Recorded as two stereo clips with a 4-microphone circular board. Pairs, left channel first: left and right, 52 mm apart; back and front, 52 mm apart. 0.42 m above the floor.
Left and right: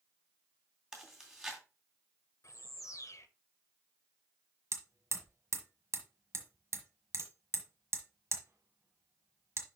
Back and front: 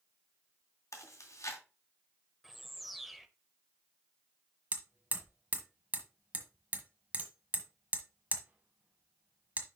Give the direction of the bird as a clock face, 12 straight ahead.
9 o'clock.